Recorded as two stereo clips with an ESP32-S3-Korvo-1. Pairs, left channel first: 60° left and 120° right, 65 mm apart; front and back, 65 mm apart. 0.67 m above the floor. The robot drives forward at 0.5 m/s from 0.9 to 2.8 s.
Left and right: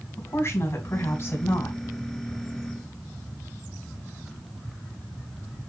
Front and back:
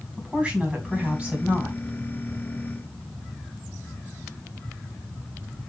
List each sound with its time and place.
0.2 s a woman speaking: 100° left, 3 m; by 1.8 s 110° left, 3 m